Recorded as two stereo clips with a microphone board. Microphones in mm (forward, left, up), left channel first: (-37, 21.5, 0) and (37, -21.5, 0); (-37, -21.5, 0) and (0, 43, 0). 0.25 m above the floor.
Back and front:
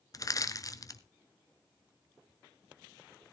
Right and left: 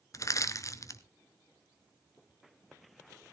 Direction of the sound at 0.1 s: 165° right.